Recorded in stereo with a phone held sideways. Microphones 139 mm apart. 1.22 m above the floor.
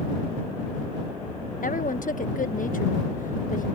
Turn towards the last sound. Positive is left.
turn(degrees=70)  # may be behind; listen again after turning